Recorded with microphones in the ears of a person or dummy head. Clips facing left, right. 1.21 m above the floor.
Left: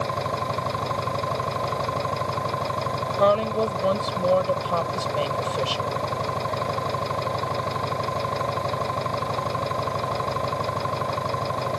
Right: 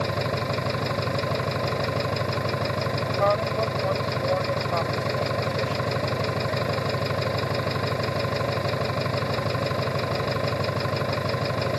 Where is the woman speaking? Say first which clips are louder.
Left 4 dB; 45° left (ahead or behind).